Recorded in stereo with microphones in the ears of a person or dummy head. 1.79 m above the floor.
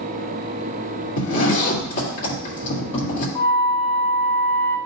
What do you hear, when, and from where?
1.2 s a zipper: 45° left (ahead or behind), 2 m
3.4 s a flute: 15° left (ahead or behind), 1.8 m